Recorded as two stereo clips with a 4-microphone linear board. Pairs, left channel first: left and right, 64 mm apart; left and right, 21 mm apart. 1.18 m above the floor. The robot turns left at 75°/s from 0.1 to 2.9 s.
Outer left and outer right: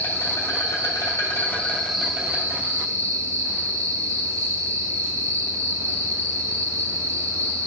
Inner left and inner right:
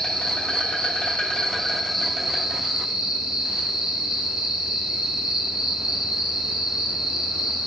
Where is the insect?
135° left, 2.5 m; by 7.7 s 75° right, 2.5 m.